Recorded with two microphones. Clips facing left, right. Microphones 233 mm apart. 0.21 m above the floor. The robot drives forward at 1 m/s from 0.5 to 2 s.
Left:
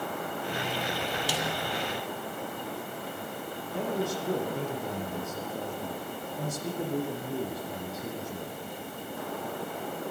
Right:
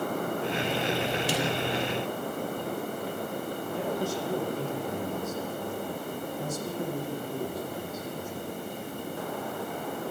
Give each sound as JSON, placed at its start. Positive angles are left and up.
{"t": 1.3, "sound": "a snare drum", "side_deg": -20, "distance_m": 7.5}
{"t": 3.7, "sound": "a man speaking", "side_deg": 70, "distance_m": 8.5}